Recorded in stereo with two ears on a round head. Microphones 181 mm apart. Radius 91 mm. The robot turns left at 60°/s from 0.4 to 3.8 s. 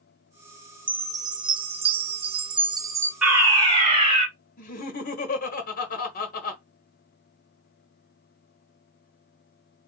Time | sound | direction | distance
0.9 | a chime | 10° right (ahead or behind) | 0.7 m
3.2 | a fire alarm | 5° right | 2.5 m
4.6 | laughter | 45° left (ahead or behind) | 1.1 m